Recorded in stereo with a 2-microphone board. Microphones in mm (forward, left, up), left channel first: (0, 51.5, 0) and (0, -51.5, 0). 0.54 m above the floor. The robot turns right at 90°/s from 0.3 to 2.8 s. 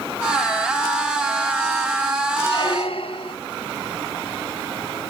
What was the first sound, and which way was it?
A squeak, 35° left.